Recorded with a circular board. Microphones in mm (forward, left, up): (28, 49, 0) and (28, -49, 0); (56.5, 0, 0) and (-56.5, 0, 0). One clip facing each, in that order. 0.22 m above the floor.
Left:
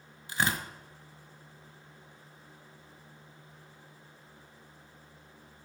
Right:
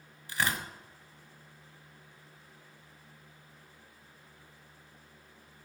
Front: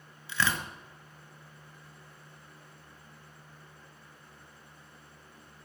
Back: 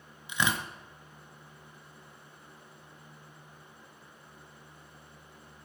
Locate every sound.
0.3 s tearing paper: 135° left, 1.4 m